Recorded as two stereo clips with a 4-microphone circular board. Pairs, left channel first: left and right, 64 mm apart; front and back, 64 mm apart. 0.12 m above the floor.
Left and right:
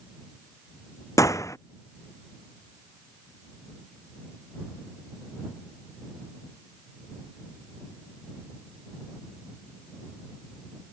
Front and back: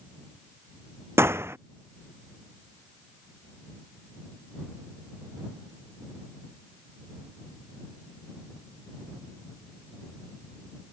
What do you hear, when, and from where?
1.2 s a gunshot: 130° left